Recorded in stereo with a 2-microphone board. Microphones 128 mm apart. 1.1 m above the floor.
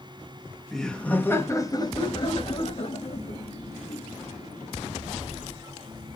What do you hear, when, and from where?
0.7 s laughter: centre (ahead or behind), 1.5 m; by 5.5 s 75° left (ahead or behind), 3.5 m